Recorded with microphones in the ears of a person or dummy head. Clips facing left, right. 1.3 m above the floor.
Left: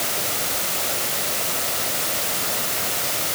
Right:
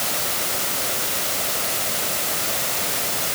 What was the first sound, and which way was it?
Only background noise.